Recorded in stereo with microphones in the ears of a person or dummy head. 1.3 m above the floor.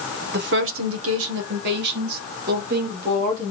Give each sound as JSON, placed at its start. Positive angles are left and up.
{"t": 0.3, "sound": "a woman speaking", "side_deg": -45, "distance_m": 1.0}